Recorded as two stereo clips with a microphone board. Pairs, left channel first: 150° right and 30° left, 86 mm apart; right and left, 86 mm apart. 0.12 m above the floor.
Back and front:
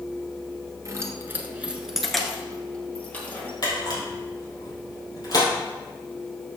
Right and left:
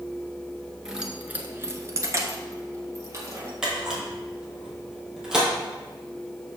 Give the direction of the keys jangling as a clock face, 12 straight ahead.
12 o'clock.